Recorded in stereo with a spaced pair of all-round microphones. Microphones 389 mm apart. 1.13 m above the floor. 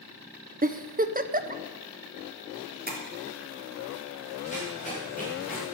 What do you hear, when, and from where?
0.6 s a giggle: 20° right (ahead or behind), 0.7 m
2.9 s tapping: 25° right (ahead or behind), 3 m
4.5 s running footsteps: 20° left (ahead or behind), 6 m